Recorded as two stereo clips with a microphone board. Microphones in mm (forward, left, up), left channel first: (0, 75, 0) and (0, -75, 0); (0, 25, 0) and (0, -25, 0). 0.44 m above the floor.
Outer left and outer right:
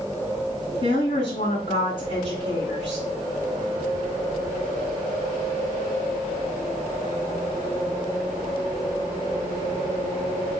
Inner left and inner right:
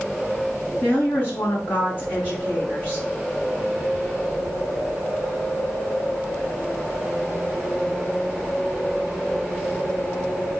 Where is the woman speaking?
40° left (ahead or behind), 4.5 m.